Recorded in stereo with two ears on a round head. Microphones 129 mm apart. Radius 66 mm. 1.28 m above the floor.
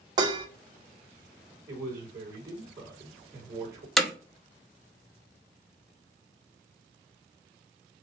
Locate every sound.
0.2 s dishes clattering: 30° right (ahead or behind), 1.2 m
1.7 s a man speaking: 30° right (ahead or behind), 3.5 m
4.0 s hammering: centre (ahead or behind), 1.4 m